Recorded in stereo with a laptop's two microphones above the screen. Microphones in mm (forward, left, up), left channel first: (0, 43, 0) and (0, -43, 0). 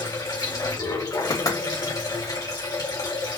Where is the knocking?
50° left (ahead or behind), 1.9 m.